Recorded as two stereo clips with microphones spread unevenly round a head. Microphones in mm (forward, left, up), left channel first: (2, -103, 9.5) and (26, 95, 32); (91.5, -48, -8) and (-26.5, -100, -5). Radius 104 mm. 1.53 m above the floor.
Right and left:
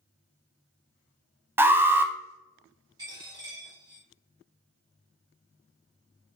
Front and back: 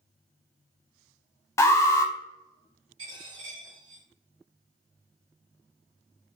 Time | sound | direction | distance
1.6 | an alarm | 5° left | 0.6 m
3.0 | a dropped coin | 150° left | 2.5 m